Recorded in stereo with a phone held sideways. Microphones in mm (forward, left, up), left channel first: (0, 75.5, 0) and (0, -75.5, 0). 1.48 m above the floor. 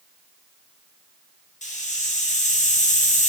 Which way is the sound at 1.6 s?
50° left (ahead or behind).